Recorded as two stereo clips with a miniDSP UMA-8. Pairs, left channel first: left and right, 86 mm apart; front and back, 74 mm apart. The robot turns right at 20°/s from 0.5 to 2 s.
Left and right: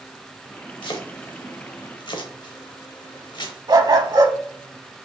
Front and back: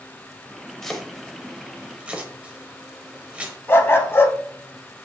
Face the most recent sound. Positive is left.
turn(degrees=-55)